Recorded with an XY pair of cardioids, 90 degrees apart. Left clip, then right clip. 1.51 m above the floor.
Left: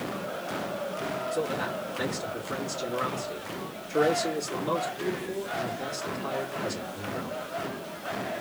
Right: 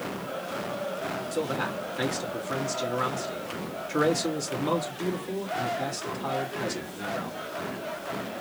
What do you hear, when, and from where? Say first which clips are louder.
1.3 s a man speaking: right 2 dB; 60° right, 2 m